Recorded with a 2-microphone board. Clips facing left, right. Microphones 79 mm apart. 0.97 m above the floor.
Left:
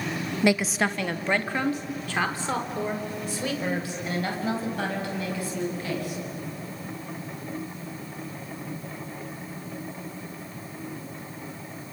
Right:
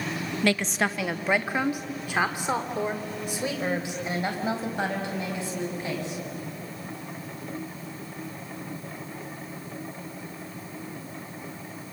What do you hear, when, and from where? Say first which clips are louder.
0.4 s a woman speaking: left 2 dB; 15° left (ahead or behind), 0.5 m; by 6.2 s 25° right (ahead or behind), 6.5 m